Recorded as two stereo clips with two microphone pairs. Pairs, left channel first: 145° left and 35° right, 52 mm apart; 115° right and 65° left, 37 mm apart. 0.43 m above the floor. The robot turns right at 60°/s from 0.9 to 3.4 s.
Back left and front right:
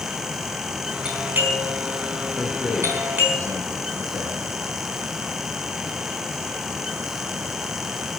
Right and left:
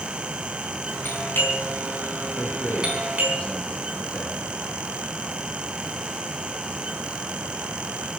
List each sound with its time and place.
1.1 s a doorbell: 110° right, 4 m; by 3.4 s 30° left, 4 m
2.4 s a man speaking: 120° right, 4.5 m; by 4.5 s 55° right, 4.5 m